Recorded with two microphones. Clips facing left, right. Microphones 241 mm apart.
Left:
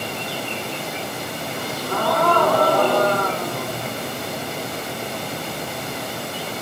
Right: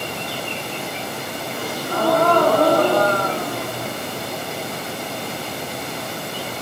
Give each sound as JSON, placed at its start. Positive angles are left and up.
{"t": 1.5, "sound": "a gasp", "side_deg": -35, "distance_m": 6.5}